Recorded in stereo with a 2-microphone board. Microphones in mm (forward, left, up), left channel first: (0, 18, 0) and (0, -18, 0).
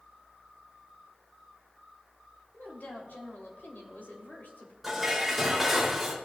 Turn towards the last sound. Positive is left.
turn(degrees=0)  # may be behind; listen again after turning